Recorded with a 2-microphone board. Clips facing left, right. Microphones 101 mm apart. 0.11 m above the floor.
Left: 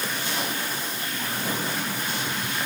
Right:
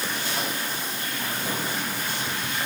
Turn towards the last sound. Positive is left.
No sound to turn to.